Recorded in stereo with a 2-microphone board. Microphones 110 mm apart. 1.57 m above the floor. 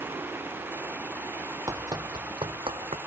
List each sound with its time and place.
1.7 s running footsteps: 30° right (ahead or behind); by 3.0 s 60° right (ahead or behind)